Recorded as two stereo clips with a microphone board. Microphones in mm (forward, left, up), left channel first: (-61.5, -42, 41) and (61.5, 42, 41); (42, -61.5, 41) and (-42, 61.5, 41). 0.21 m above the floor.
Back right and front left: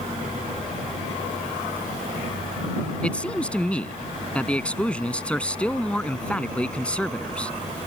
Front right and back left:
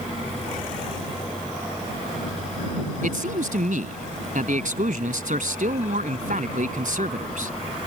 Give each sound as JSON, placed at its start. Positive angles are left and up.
{"t": 3.0, "sound": "a man speaking", "azimuth_deg": 135}